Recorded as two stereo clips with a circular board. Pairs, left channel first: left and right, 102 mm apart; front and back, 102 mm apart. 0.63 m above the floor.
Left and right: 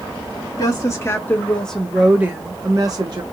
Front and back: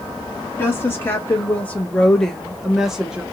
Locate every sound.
0.6 s a woman speaking: 60° left, 1.0 m; by 3.2 s 105° right, 0.9 m